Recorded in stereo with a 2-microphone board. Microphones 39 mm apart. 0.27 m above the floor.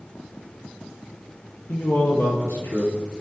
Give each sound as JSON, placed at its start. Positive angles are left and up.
{"t": 1.7, "sound": "a man speaking", "side_deg": 80, "distance_m": 7.5}